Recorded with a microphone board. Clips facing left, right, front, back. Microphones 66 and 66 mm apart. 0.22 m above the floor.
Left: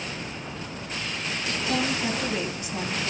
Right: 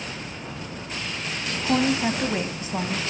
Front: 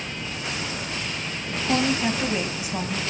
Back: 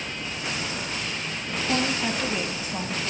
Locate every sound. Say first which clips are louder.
1.6 s a woman speaking: right 6 dB, front 3 dB; 70° right, 1.2 m